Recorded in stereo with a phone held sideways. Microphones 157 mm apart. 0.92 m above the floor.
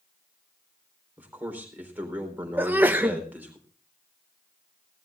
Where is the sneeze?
10° right (ahead or behind), 0.8 m.